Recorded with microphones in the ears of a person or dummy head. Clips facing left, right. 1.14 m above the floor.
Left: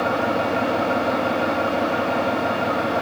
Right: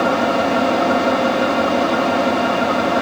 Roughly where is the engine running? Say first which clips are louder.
Right 5 dB; right.